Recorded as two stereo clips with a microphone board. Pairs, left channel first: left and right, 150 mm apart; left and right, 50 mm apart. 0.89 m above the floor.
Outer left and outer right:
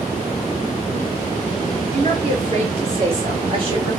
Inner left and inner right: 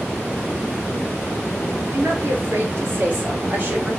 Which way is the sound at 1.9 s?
50° right (ahead or behind).